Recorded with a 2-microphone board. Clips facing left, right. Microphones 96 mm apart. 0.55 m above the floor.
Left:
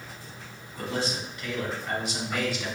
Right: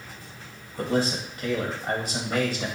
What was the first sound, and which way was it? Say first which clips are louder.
A man speaking: right 5 dB; 45° right (ahead or behind).